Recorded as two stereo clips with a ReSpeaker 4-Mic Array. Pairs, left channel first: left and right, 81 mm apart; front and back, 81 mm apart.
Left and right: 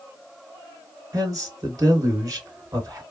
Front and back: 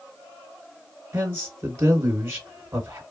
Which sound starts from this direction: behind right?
A man speaking, at 1.1 s.